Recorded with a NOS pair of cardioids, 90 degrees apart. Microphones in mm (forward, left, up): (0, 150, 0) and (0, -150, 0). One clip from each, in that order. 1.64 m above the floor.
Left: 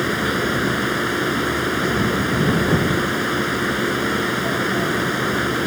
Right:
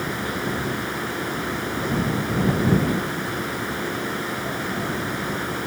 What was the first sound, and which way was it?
A fan, 50° left.